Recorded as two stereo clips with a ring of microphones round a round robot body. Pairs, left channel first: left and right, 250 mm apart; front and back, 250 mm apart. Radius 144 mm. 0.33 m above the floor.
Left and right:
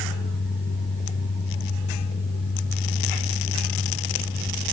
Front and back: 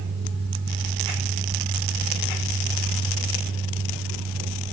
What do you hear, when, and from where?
Only background noise.